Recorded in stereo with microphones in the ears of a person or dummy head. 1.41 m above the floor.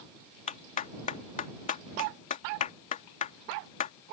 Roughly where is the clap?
Left.